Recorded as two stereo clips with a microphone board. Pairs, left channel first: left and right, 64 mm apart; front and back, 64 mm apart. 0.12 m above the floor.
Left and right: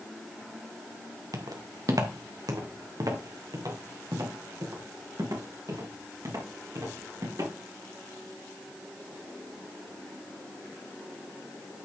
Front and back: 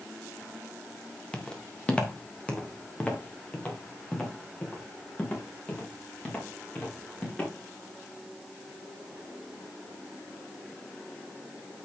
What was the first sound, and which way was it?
Footsteps, 75° right.